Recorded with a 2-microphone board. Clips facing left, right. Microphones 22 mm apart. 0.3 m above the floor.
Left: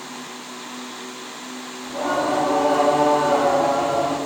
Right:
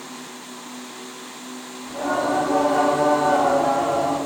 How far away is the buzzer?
I don't hear a buzzer.